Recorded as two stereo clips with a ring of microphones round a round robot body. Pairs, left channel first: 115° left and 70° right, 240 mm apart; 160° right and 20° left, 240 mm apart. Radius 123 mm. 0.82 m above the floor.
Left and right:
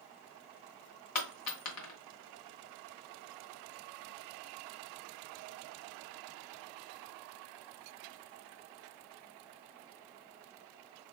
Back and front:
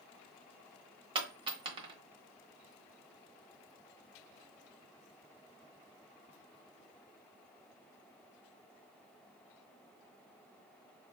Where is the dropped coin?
90° left, 1.2 m.